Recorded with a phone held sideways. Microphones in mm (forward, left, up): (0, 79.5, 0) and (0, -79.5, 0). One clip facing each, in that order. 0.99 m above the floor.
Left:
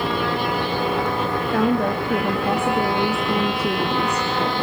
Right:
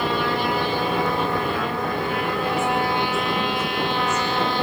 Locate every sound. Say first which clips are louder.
1.5 s a woman speaking: left 6 dB; 65° left (ahead or behind), 2 m